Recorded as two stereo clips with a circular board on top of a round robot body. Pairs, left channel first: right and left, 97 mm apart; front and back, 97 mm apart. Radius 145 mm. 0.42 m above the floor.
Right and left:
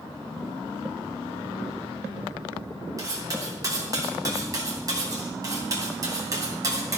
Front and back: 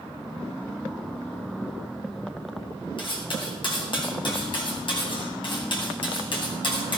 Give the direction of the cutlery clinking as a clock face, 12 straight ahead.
11 o'clock.